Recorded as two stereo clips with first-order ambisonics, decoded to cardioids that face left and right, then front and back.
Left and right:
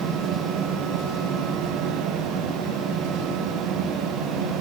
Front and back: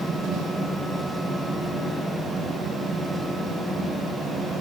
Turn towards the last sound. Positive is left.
No sound to turn to.